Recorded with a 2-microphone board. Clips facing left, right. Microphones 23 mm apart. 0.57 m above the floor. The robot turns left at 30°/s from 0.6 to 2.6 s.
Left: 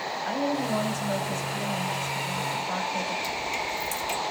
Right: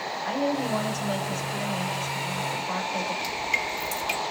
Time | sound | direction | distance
0.2 | a woman speaking | 70° right | 1.7 m
3.2 | dripping | 45° right (ahead or behind) | 1.3 m